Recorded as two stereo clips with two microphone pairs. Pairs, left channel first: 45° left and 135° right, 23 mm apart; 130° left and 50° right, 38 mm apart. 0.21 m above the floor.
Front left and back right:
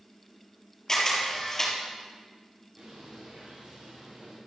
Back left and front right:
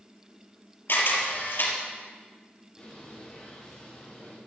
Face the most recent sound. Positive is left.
turn(degrees=-165)